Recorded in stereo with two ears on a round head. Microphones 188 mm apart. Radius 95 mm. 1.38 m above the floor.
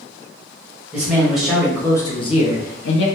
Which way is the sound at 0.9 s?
5° right (ahead or behind).